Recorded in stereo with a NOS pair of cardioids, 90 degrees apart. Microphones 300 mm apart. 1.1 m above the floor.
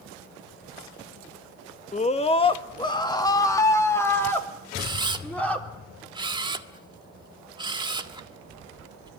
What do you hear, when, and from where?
1.9 s a scream: 25° left, 1.4 m; by 5.7 s 5° left, 3.5 m
4.8 s a camera shutter: 15° right, 1.7 m